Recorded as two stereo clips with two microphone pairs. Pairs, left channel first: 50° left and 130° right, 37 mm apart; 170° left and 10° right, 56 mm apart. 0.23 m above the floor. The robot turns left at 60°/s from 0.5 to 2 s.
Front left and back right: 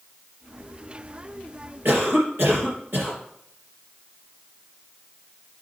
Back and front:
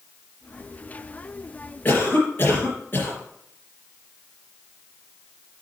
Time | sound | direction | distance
1.9 | a cough | 130° right | 4 m